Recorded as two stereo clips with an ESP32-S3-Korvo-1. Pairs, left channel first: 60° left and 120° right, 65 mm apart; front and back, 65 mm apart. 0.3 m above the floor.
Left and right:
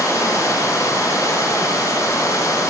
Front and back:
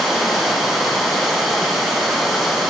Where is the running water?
95° left, 3 m.